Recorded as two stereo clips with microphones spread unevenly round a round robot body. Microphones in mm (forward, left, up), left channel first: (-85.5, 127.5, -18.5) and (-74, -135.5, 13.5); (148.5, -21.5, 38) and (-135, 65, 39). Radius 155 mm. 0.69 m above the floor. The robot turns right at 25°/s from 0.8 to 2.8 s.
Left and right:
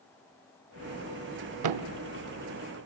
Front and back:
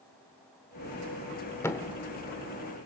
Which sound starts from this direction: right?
A thud, at 1.6 s.